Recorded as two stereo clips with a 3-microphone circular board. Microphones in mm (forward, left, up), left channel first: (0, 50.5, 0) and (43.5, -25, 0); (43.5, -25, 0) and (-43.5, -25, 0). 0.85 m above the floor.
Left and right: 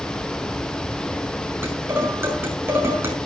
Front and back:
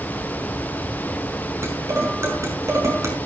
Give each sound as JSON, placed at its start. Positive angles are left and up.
{"t": 1.6, "sound": "dishes clattering", "azimuth_deg": -125, "distance_m": 5.5}